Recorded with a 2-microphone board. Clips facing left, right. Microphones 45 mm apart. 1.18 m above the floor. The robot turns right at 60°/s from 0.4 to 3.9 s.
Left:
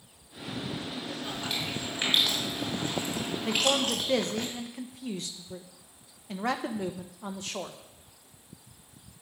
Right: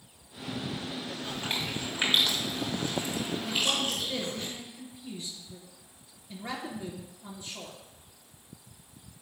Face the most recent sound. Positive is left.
turn(degrees=70)  # may be behind; listen again after turning